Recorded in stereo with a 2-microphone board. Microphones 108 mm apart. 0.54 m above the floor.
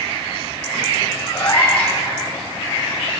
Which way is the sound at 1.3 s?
65° left (ahead or behind).